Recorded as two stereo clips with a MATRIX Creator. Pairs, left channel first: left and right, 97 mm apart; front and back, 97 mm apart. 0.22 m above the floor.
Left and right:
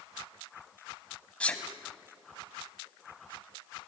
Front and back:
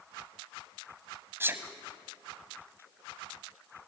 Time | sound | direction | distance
1.4 | a sneeze | 150° left | 1.2 m